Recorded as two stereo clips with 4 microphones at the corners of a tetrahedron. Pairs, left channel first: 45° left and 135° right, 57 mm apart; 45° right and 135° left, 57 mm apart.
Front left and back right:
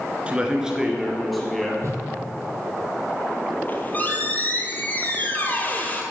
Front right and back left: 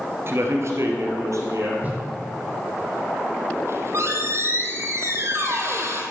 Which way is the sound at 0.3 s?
160° left.